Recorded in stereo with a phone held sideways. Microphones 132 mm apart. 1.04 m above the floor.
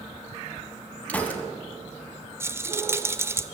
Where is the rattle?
20° right (ahead or behind), 0.6 m.